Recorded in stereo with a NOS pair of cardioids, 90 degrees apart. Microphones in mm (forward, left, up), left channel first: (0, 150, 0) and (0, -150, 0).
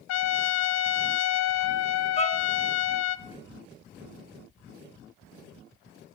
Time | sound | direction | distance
0.1 | a trumpet | 60° left | 0.8 m
2.2 | a violin | 25° left | 1.5 m